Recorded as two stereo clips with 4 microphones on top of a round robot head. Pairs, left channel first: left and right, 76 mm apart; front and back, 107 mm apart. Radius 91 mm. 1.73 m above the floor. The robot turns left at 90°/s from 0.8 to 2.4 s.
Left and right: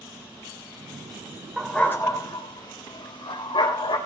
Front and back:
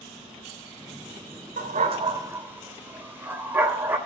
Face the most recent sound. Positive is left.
turn(degrees=110)